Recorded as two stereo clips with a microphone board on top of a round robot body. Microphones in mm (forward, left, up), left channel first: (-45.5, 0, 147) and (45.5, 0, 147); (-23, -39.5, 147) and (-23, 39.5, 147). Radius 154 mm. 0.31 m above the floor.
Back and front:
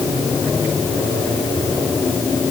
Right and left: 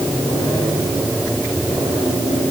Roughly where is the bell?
I don't hear a bell.